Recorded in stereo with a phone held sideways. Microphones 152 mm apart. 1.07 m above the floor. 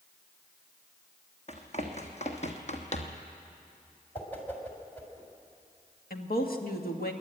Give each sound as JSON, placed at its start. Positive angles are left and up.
{"t": 1.5, "sound": "running footsteps", "side_deg": 45, "distance_m": 2.5}
{"t": 4.2, "sound": "a whoosh", "side_deg": 10, "distance_m": 3.0}
{"t": 6.1, "sound": "a woman speaking", "side_deg": 75, "distance_m": 1.8}